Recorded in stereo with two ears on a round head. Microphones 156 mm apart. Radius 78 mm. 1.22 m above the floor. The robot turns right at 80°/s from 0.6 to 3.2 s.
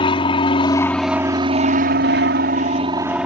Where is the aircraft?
145° left; by 3.3 s 5° right.